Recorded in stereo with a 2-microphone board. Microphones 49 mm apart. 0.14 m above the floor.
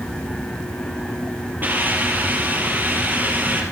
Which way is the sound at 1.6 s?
40° right (ahead or behind).